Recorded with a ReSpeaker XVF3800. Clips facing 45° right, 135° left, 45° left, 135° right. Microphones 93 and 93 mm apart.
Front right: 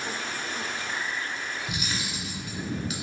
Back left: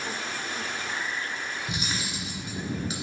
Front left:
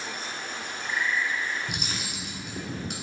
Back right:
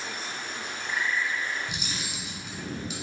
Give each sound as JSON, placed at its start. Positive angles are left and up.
{"t": 1.7, "sound": "cutlery clinking", "azimuth_deg": 75, "distance_m": 1.8}